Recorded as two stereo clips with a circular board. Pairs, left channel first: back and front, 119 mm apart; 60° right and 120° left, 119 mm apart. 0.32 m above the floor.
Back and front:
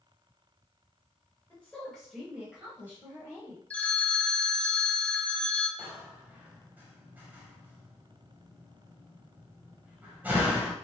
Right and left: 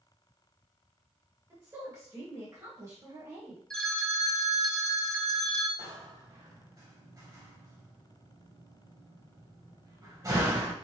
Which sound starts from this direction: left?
A door slam, at 5.8 s.